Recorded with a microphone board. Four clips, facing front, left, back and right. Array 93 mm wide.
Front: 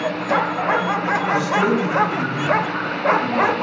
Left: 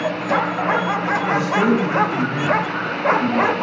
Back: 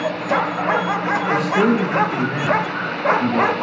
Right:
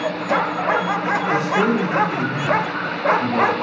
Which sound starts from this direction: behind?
A man speaking, at 1.3 s.